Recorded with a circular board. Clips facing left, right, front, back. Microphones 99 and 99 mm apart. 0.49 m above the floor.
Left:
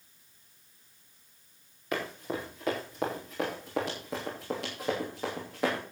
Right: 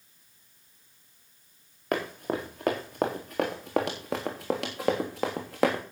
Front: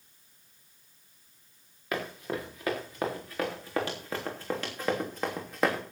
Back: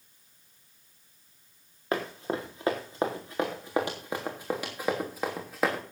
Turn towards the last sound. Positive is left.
turn(degrees=-90)